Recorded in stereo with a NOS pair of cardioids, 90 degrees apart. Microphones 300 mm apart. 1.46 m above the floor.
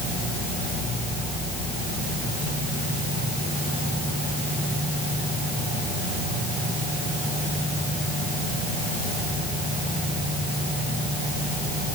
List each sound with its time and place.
Only background noise.